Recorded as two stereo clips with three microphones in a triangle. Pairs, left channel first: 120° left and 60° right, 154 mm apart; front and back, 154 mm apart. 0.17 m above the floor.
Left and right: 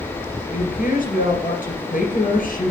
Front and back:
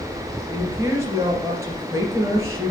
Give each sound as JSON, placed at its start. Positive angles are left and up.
{"t": 0.5, "sound": "a woman speaking", "azimuth_deg": 110, "distance_m": 2.5}